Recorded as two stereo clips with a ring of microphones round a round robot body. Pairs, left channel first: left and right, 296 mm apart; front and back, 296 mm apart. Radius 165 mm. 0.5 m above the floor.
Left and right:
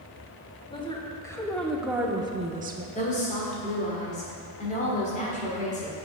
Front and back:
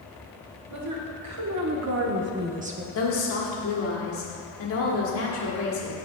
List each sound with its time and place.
0.7 s a woman speaking: 160° left, 1.4 m; by 2.9 s 120° right, 0.8 m
3.0 s a woman speaking: 30° left, 1.4 m